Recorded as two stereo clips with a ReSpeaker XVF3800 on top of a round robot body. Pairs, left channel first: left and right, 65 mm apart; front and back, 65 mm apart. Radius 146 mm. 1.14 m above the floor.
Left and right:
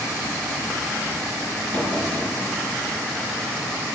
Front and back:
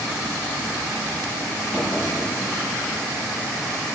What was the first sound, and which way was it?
A drawer, 90° right.